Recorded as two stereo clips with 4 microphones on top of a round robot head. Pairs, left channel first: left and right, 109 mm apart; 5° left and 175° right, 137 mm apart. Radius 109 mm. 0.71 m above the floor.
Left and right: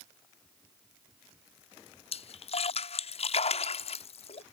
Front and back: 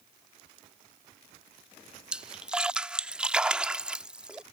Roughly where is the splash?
Left.